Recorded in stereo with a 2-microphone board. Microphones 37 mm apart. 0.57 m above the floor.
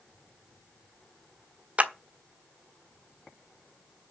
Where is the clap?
40° right (ahead or behind), 1.3 m.